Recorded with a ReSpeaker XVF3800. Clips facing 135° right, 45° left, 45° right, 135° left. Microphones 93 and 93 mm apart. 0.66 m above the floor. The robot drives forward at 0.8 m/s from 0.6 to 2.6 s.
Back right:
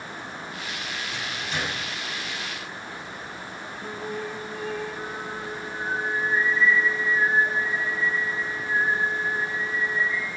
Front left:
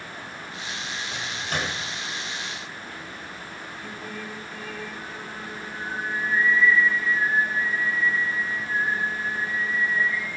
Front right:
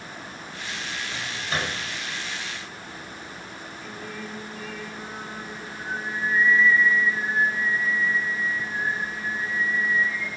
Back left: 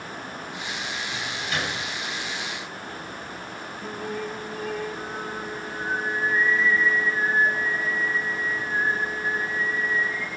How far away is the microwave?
About 3.5 m.